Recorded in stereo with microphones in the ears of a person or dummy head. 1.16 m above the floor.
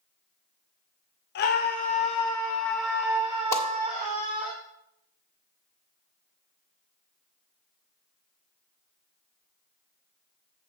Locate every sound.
1.4 s a scream: 55° left (ahead or behind), 1.0 m; by 4.5 s 45° right (ahead or behind), 1.5 m
3.5 s a whoosh: 15° left (ahead or behind), 1.7 m